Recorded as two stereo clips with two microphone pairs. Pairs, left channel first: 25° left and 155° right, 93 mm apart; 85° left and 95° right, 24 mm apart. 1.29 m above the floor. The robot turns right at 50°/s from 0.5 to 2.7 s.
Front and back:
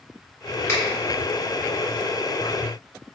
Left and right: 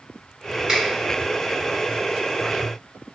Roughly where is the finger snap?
Ahead right.